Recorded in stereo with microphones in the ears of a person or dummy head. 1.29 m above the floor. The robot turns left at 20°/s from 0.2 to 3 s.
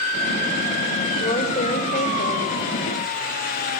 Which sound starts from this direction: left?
A woman speaking, at 1.2 s.